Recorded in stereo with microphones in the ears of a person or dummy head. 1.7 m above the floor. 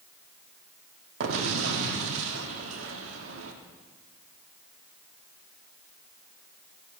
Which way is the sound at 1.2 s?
80° right.